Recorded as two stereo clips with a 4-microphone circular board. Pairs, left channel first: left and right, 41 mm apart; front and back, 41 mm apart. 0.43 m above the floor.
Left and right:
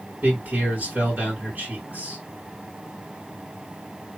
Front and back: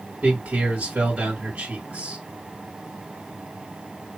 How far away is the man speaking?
About 2.5 m.